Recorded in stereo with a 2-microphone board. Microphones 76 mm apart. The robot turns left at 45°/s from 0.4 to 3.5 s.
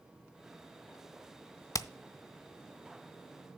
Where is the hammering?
50° left (ahead or behind), 0.5 m; by 1.9 s 45° left (ahead or behind), 0.5 m.